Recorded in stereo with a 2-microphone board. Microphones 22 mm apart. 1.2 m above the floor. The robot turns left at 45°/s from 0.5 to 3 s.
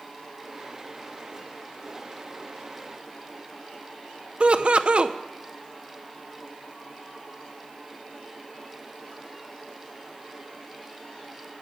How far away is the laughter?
About 0.6 m.